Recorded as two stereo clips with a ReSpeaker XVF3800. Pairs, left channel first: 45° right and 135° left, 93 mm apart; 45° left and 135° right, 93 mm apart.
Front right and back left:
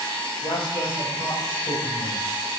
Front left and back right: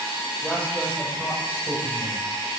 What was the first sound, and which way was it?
A man speaking, 30° right.